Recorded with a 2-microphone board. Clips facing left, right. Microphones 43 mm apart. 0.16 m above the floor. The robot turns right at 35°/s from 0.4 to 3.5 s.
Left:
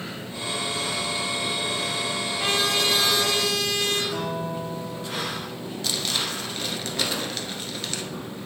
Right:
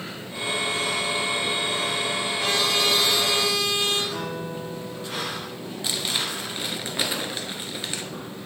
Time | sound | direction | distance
2.4 | a trumpet | 160° left | 3 m
4.1 | a guitar | 20° left (ahead or behind) | 1.8 m
5.8 | crumpling | 20° right (ahead or behind) | 1.0 m